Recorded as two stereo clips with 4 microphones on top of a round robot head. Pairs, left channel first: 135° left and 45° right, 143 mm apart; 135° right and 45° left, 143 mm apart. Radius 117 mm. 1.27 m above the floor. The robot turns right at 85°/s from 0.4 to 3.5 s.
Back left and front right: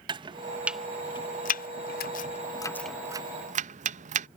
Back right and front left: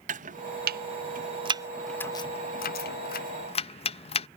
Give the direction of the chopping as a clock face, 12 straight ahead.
12 o'clock.